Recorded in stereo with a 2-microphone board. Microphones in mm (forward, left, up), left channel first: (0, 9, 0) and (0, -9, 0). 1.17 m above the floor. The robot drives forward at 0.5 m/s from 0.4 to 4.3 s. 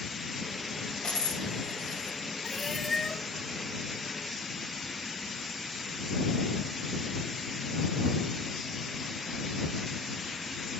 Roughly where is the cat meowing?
Left.